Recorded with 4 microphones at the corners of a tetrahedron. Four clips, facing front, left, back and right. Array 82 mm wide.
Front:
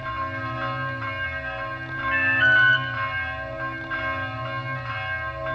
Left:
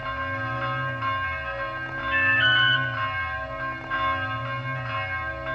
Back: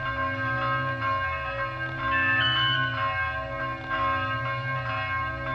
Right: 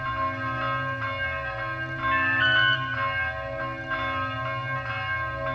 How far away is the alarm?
About 3 m.